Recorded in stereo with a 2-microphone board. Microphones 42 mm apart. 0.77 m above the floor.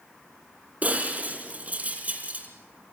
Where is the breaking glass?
35° right (ahead or behind), 3.5 m.